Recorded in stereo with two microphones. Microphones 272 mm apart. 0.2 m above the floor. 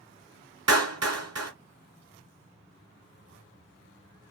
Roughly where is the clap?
Right.